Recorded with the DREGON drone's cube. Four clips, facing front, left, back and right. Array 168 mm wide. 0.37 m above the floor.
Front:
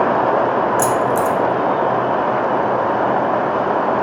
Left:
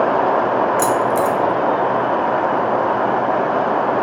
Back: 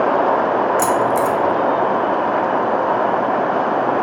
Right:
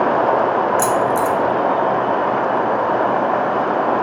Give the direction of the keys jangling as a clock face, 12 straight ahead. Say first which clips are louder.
Even, even; 2 o'clock.